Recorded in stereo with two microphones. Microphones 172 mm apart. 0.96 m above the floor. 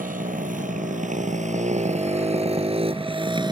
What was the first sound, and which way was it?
A motorcycle, 45° right (ahead or behind).